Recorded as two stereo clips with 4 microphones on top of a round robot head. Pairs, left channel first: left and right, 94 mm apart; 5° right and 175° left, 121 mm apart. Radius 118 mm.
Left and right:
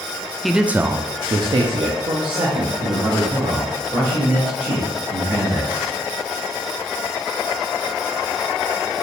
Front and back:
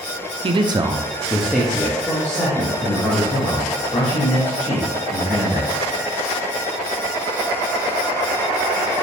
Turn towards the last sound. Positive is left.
turn(degrees=-65)